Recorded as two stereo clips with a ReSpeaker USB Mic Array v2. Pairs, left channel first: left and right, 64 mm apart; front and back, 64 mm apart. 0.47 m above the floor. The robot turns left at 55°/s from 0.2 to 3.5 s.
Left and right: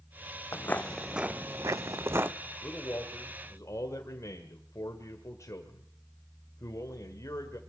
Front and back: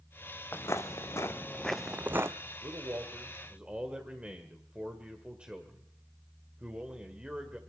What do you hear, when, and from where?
0.5 s footsteps: 50° left, 0.7 m; by 2.3 s 145° right, 0.7 m
2.6 s a man speaking: 155° left, 1.8 m; by 7.6 s 105° left, 1.8 m